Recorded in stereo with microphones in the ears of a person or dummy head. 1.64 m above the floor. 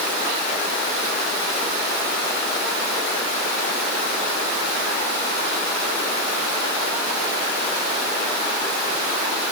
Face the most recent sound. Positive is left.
No sound to turn to.